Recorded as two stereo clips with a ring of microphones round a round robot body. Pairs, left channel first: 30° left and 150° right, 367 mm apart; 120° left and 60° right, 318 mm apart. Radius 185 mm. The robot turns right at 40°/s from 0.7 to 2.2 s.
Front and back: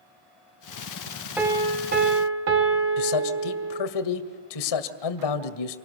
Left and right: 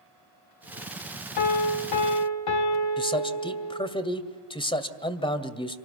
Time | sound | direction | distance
1.4 | a piano | 125° left | 1.7 m
3.0 | a man speaking | 45° left | 2 m